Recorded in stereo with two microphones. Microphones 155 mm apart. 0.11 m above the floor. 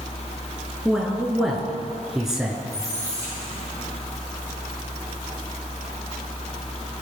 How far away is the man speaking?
About 1.4 m.